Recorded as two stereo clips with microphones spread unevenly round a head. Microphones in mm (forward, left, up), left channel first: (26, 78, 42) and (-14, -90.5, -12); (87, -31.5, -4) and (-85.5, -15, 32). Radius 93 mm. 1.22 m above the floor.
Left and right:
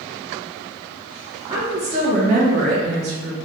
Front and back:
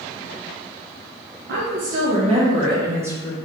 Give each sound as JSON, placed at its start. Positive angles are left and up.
{"t": 1.5, "sound": "a woman speaking", "azimuth_deg": -160, "distance_m": 1.1}